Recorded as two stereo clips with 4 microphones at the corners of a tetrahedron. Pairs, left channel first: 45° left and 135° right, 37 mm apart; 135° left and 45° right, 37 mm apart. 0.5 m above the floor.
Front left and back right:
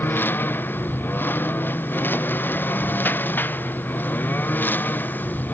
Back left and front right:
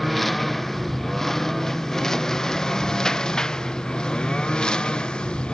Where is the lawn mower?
50° left; by 5.5 s 75° left.